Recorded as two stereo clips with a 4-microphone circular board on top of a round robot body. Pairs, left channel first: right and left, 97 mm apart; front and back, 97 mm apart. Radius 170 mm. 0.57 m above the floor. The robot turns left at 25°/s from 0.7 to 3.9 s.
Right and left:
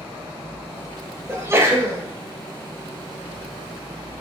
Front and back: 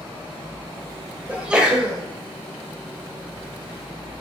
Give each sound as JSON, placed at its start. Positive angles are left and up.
{"t": 1.3, "sound": "a sneeze", "azimuth_deg": 115, "distance_m": 0.8}